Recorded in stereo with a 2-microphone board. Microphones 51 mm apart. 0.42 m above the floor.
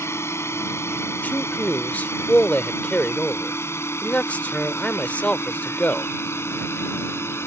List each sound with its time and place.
0.0 s a drone: 60° left (ahead or behind); by 7.5 s 55° left (ahead or behind)
1.2 s a man speaking: 30° left (ahead or behind)